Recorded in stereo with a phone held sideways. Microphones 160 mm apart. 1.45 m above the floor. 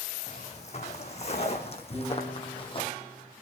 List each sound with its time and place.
0.3 s footsteps: 45° left (ahead or behind), 3.5 m; by 2.9 s 35° left (ahead or behind), 2 m
1.9 s a piano: 15° right (ahead or behind), 9 m